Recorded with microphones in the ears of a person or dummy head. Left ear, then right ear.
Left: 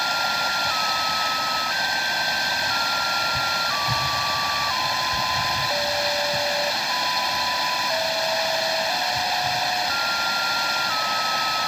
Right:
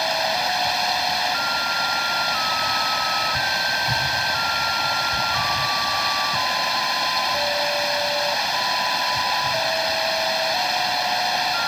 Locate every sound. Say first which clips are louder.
0.0 s running water: right 1 dB; 10° right (ahead or behind)